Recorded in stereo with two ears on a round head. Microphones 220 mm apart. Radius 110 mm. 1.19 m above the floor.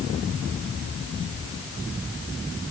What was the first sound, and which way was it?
Only background noise.